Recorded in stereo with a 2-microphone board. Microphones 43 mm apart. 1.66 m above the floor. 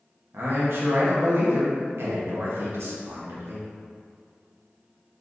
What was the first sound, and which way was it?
A man speaking, 60° right (ahead or behind).